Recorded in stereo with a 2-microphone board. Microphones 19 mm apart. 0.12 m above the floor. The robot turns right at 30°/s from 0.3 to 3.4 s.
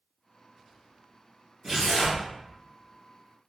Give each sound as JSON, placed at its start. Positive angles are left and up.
{"t": 1.6, "sound": "tearing paper", "side_deg": -5, "distance_m": 1.7}